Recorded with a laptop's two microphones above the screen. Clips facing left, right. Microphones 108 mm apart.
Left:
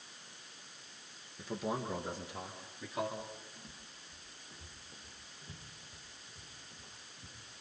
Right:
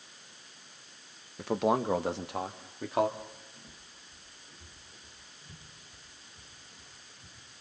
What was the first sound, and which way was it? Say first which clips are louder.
A man speaking: right 10 dB; 65° right (ahead or behind).